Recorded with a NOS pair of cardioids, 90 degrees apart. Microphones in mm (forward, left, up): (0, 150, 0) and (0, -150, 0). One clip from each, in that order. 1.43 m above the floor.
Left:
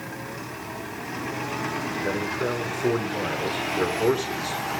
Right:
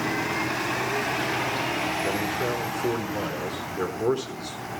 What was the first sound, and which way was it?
A man speaking, 15° left.